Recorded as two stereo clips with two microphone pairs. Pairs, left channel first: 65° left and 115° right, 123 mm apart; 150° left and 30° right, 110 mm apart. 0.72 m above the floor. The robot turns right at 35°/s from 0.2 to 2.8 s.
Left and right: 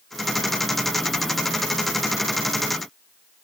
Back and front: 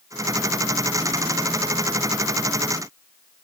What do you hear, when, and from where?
Only background noise.